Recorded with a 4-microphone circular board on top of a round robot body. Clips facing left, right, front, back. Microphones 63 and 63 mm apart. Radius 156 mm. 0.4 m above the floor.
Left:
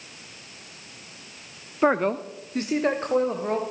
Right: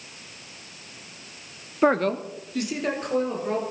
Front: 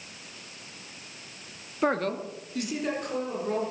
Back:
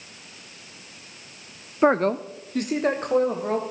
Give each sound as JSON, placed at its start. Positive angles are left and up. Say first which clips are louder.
{"t": 1.8, "sound": "a man speaking", "louder": "right 1 dB, back 7 dB", "azimuth_deg": 180, "distance_m": 0.9}